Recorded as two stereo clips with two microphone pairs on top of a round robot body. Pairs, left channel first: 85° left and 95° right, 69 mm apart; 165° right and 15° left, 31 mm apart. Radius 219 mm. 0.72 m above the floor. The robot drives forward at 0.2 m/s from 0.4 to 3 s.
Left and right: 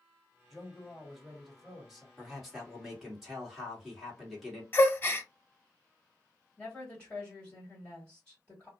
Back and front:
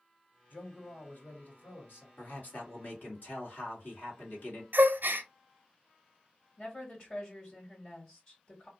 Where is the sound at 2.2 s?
Straight behind, 1.8 m.